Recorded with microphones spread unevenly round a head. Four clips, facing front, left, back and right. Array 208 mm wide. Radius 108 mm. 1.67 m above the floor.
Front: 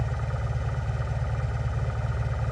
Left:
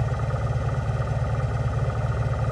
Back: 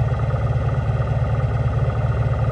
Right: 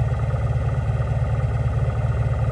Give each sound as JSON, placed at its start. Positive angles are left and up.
{"t": 0.0, "sound": "an engine running", "azimuth_deg": 175}